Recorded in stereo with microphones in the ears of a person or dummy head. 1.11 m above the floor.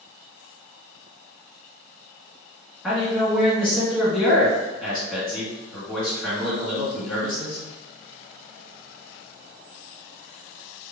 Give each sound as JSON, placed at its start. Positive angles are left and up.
{"t": 2.8, "sound": "a man speaking", "side_deg": 5, "distance_m": 2.0}